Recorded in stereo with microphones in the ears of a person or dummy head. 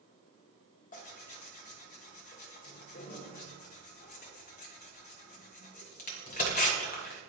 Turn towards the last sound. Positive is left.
turn(degrees=45)  # may be behind; listen again after turning